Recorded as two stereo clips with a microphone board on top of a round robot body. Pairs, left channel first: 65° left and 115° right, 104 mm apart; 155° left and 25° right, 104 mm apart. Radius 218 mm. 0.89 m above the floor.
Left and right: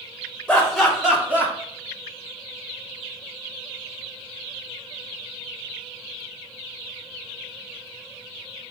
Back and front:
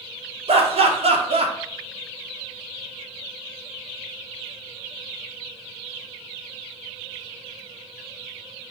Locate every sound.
0.5 s laughter: 15° right, 1.3 m; by 1.5 s 40° right, 1.3 m